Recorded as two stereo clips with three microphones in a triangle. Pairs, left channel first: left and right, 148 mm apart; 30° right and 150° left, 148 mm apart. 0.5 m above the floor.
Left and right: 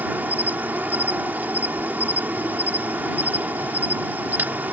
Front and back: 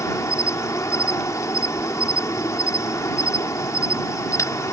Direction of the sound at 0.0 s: 35° right.